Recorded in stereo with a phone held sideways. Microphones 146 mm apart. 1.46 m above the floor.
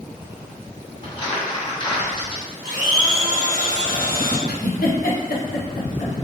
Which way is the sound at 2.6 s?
80° right.